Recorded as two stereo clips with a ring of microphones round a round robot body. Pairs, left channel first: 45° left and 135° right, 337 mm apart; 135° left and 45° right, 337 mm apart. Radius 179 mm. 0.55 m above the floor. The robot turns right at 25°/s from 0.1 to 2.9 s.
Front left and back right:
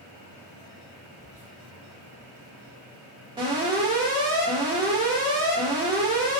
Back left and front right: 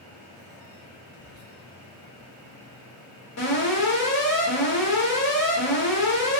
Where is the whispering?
160° right, 1.1 m; by 1.6 s 150° right, 1.1 m.